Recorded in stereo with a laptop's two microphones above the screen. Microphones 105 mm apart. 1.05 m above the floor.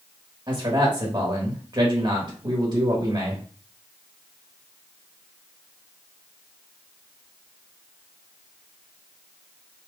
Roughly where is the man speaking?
Right.